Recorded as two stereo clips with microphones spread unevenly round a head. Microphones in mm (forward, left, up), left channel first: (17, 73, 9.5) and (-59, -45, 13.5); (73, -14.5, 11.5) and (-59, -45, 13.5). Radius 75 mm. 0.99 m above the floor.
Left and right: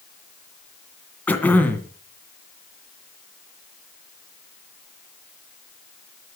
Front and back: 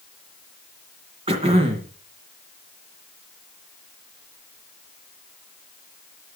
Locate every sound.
1.3 s throat clearing: 135° left, 2 m